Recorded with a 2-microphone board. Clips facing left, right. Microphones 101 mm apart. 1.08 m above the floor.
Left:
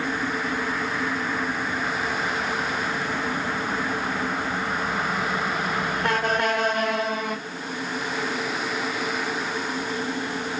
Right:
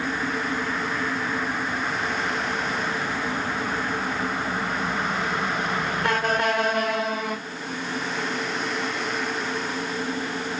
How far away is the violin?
I don't hear a violin.